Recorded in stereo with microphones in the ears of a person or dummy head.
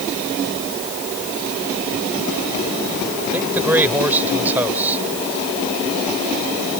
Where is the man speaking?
10° right (ahead or behind).